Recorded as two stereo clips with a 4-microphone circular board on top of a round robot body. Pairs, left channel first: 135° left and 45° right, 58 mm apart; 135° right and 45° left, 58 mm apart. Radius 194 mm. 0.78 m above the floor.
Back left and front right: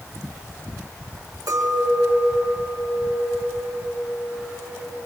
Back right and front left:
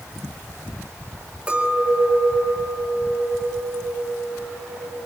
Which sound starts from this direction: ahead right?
A clink, at 1.5 s.